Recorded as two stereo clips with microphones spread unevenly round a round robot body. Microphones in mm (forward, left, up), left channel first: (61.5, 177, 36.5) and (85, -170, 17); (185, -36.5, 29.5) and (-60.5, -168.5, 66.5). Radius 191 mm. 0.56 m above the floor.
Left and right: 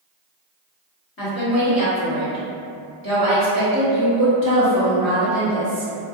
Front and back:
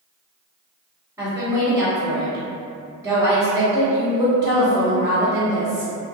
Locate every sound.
1.2 s a woman speaking: 125° left, 1.4 m